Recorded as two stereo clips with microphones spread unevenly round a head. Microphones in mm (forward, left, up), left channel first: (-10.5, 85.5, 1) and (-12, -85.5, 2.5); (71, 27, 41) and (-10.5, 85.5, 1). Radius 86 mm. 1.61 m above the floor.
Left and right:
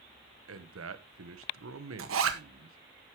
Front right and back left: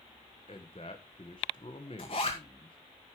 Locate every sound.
0.5 s a man speaking: 95° right, 1.3 m
2.0 s a zipper: 90° right, 1.7 m